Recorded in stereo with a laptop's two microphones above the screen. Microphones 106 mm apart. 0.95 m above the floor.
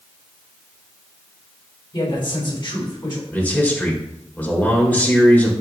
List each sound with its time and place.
1.9 s a man speaking: 50° left (ahead or behind), 3.5 m
3.3 s a man speaking: 15° left (ahead or behind), 3 m